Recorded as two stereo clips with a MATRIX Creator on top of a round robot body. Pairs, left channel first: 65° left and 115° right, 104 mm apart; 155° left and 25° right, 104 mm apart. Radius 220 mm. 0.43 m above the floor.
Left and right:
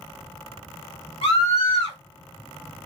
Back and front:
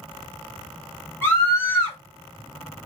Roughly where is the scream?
Left.